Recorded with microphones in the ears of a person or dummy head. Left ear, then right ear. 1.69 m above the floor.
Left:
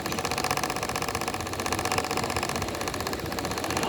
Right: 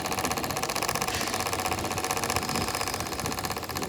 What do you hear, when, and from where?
Only background noise.